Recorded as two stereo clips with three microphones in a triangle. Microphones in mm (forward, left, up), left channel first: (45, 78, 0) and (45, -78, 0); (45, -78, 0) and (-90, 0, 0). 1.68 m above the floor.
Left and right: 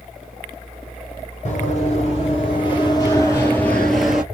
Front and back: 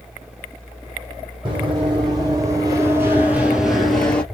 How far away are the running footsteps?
About 2.5 m.